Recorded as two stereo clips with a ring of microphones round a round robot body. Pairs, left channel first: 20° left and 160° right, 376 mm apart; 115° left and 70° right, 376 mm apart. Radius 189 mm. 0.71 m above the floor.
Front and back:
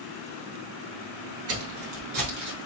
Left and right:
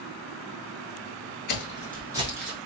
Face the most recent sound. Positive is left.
turn(degrees=-80)